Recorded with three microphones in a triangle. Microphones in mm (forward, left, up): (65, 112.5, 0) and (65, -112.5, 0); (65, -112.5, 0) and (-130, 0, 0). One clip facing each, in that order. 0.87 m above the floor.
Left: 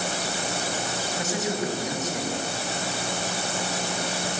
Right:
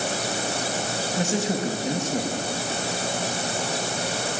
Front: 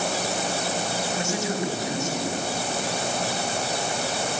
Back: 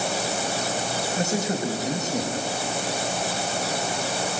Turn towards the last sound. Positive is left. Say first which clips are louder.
# right 3 dB, back 3 dB
turn(degrees=-155)